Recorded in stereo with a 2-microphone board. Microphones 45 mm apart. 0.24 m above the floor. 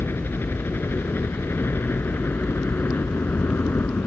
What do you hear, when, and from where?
0.0 s a helicopter: 55° left (ahead or behind)